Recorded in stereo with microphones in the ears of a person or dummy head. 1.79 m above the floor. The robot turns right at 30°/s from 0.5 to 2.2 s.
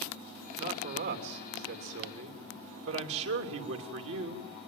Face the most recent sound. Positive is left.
turn(degrees=-105)